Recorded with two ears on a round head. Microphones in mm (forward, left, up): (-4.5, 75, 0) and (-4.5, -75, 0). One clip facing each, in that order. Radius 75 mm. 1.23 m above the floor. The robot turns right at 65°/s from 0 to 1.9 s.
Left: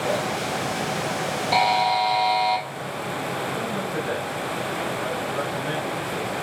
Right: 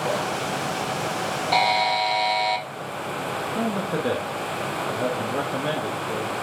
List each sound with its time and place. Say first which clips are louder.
1.5 s a buzzer: left 1 dB; centre (ahead or behind), 1.0 m; by 2.6 s 25° right (ahead or behind), 1.0 m
3.5 s a man speaking: right 2 dB; 80° right, 1.3 m